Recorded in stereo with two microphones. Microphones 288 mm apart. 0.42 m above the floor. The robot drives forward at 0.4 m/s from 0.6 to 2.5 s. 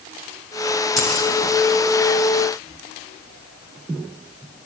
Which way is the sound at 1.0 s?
70° left (ahead or behind).